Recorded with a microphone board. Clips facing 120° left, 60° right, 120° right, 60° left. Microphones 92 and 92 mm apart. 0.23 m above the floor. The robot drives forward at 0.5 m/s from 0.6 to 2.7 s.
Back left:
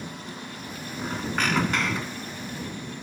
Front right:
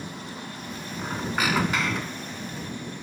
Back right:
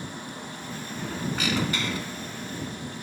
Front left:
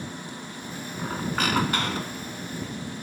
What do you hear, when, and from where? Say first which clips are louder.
1.0 s a squeak: even, front left 3 dB; 20° left, 1.3 m; by 2.4 s 40° left, 0.8 m